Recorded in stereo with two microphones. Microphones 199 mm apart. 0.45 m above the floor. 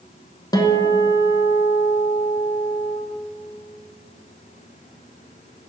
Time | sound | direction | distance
0.5 | a guitar | 20° left (ahead or behind) | 0.8 m